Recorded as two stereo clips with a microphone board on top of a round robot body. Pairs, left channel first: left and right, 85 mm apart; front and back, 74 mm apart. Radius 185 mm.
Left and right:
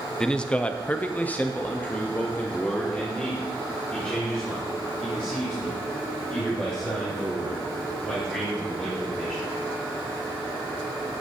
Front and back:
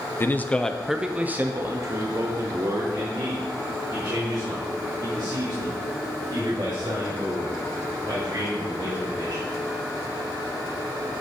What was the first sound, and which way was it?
A man speaking, 15° left.